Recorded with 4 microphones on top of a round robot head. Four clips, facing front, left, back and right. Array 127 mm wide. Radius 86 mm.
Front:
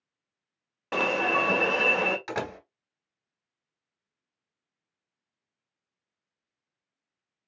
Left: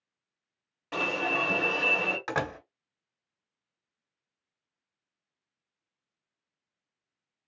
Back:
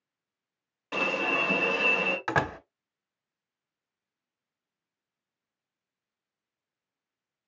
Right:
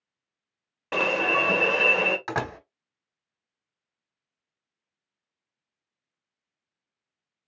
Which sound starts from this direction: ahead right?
An alarm, at 0.9 s.